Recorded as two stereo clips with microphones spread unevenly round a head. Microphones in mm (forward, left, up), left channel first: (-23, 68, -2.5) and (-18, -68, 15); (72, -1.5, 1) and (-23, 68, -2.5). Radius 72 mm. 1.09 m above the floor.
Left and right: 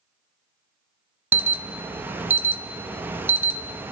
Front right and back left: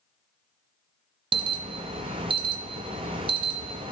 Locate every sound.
1.3 s an alarm: 160° right, 0.6 m